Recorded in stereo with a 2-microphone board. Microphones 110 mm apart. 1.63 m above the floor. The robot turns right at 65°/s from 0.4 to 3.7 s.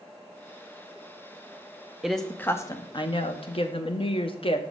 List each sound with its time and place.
2.0 s a woman speaking: 5° right, 0.7 m; by 4.6 s 105° left, 0.7 m